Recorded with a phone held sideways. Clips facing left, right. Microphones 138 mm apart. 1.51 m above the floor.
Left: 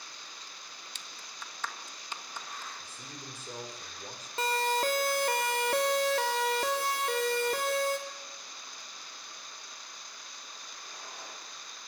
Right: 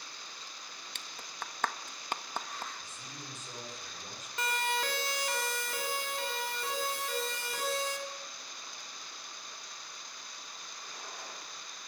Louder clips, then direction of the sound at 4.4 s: Left 5 dB; 30° left (ahead or behind).